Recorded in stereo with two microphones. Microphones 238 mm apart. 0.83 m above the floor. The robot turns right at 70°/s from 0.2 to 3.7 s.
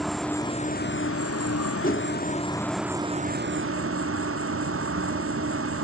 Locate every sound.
0.0 s an insect: straight ahead, 0.8 m; by 5.8 s 115° right, 0.8 m
1.8 s a whoosh: 35° left (ahead or behind), 1.6 m; by 2.1 s 50° left (ahead or behind), 1.6 m